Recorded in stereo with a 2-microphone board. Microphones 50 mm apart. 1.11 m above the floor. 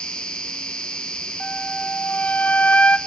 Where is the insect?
20° left (ahead or behind), 1.8 m.